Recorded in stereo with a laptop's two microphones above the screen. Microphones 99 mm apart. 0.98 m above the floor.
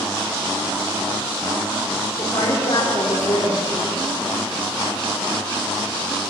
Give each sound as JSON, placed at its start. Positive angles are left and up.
{"t": 2.2, "sound": "a woman speaking", "side_deg": 55, "distance_m": 3.0}